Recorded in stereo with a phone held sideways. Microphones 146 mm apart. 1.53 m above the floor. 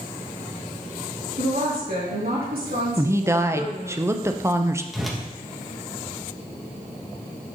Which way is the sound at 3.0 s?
20° right (ahead or behind).